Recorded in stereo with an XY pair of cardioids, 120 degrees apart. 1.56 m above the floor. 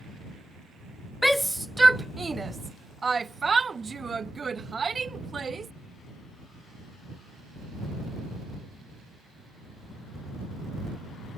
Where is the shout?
10° left; by 5.7 s 30° right.